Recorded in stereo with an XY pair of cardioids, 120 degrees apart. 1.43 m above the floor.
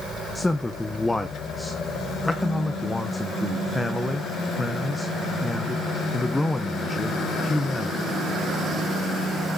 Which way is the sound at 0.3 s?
5° left.